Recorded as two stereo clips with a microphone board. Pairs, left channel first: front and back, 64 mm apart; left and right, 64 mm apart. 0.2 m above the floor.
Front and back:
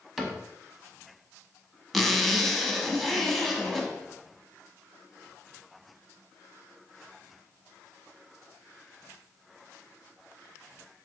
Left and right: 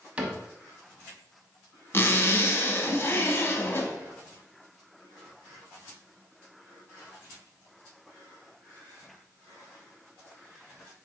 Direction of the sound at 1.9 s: 85° left.